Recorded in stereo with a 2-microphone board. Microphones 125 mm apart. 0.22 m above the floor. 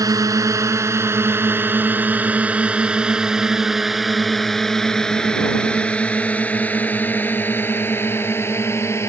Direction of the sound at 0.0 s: 30° right (ahead or behind).